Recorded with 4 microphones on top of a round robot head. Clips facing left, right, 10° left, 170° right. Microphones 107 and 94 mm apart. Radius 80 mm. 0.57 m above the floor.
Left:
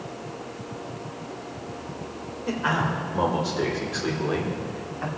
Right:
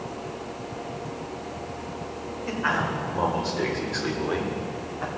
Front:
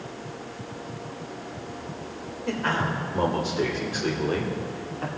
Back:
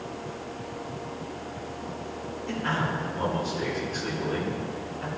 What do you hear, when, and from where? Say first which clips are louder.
2.5 s a man speaking: left 1 dB, front 3 dB; 20° left, 3 m; by 5.1 s 15° right, 2.0 m